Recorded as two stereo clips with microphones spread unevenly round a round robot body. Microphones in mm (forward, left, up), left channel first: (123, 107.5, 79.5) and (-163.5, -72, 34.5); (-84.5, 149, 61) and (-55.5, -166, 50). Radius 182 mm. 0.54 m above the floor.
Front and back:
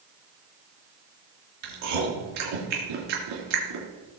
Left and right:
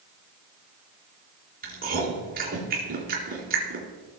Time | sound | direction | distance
1.6 | chewing | 150° right | 3.5 m